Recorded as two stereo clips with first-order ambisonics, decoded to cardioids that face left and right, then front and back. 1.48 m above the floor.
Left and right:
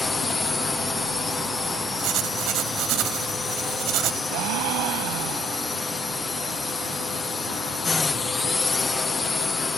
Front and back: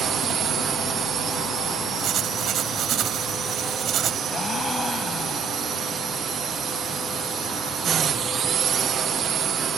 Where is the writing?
130° right.